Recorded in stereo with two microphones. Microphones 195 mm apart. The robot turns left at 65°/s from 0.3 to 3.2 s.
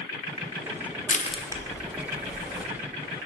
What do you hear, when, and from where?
1.1 s crushing: 45° left (ahead or behind), 0.6 m; by 2.7 s 60° right (ahead or behind), 0.6 m